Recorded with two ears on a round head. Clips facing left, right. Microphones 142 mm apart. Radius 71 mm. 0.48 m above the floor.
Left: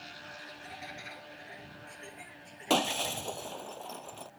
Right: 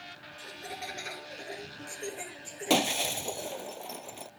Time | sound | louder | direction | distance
0.4 | laughter | right 7 dB | 60° right (ahead or behind) | ?
2.7 | breaking glass | right 2 dB | 15° right (ahead or behind) | ?